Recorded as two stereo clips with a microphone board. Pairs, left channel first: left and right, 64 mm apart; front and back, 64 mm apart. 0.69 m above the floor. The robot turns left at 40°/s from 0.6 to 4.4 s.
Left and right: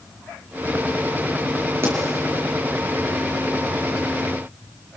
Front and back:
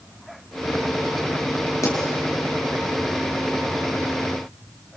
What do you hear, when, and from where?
1.8 s a pop: 40° right, 5 m; by 2.0 s 45° right, 5 m